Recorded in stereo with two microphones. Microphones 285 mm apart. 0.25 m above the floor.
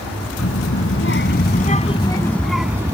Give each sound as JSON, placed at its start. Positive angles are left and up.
{"t": 0.4, "sound": "a child speaking", "side_deg": 60}